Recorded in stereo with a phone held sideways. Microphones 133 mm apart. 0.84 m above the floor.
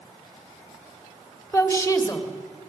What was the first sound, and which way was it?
A woman speaking, 15° left (ahead or behind).